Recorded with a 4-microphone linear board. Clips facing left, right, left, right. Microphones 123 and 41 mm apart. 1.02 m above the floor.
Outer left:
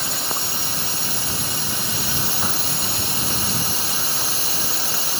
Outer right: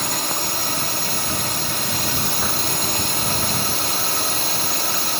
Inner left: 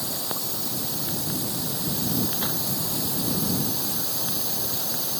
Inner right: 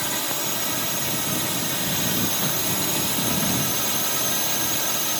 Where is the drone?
65° right (ahead or behind).